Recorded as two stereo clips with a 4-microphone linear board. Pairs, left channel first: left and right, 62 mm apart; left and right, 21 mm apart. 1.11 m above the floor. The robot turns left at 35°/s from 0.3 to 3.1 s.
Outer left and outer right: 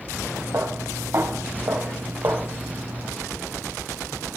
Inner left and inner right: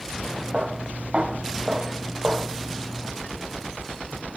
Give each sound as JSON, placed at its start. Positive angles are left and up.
{"t": 0.5, "sound": "footsteps", "side_deg": -70, "distance_m": 4.5}